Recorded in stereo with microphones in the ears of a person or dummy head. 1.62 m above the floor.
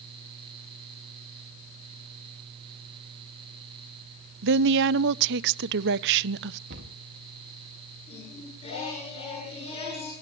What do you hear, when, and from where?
4.4 s a woman speaking: 65° right (ahead or behind), 0.6 m
6.7 s a cupboard door: 65° right (ahead or behind), 1.9 m
8.1 s singing: 30° left (ahead or behind), 9.5 m